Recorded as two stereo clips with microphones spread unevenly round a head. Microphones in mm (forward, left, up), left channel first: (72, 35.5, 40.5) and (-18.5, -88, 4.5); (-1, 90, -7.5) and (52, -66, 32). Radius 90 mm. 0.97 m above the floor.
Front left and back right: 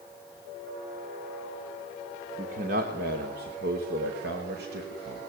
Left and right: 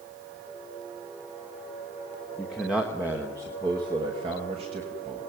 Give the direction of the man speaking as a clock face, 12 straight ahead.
6 o'clock.